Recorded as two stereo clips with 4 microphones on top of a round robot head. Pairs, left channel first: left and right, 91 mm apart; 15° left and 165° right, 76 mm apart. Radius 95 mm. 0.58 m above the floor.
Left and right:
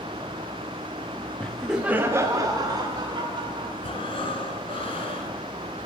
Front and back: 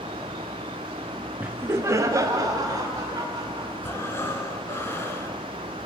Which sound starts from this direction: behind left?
Laughter, at 1.4 s.